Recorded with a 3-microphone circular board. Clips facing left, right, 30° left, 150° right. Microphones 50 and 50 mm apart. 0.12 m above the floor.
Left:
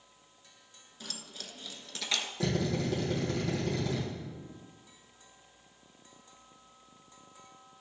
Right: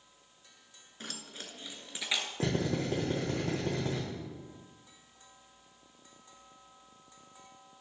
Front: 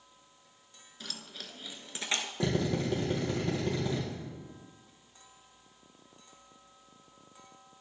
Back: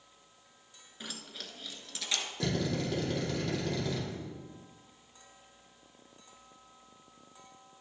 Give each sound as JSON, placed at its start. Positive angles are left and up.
{"t": 1.0, "sound": "keys jangling", "azimuth_deg": -90, "distance_m": 1.0}
{"t": 2.4, "sound": "a drill", "azimuth_deg": -45, "distance_m": 3.5}